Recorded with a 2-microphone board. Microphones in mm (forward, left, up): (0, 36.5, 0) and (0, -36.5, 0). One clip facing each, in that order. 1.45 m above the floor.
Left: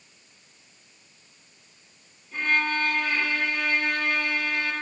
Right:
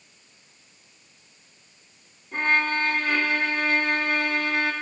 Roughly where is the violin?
Right.